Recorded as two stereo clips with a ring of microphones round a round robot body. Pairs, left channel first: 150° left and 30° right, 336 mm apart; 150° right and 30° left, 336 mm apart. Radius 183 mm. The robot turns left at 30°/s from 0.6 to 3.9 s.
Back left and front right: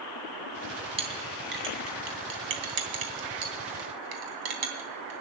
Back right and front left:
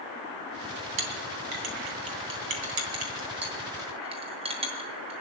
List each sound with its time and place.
1.0 s a clink: 45° left, 3 m; by 5.2 s 45° right, 3 m